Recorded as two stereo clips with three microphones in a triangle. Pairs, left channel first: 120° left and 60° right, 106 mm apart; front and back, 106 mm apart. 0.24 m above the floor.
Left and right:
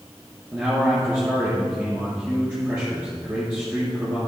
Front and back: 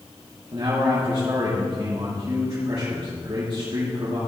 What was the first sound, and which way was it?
A man speaking, 135° right.